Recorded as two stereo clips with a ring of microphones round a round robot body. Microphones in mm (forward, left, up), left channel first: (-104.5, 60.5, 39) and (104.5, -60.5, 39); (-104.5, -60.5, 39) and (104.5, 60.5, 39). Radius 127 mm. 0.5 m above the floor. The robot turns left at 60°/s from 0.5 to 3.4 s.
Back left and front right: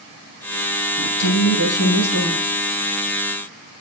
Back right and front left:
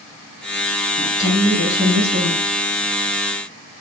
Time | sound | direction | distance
1.0 | a woman speaking | 150° left | 4.5 m